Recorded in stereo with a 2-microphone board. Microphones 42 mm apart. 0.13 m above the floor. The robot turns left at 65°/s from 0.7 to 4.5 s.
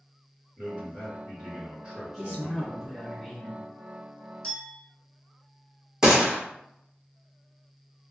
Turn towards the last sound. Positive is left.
turn(degrees=-15)  # may be behind; listen again after turning